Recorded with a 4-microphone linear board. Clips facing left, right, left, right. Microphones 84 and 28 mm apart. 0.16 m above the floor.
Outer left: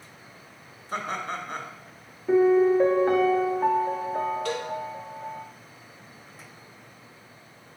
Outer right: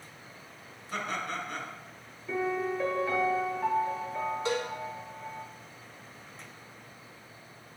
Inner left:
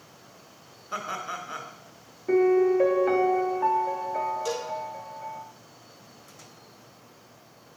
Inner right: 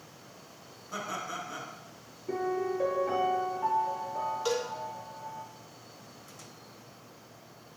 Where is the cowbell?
20° right (ahead or behind), 3 m.